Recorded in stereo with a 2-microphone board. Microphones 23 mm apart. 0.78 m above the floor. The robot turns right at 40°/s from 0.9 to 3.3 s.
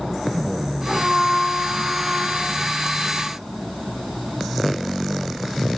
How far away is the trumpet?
About 7.5 m.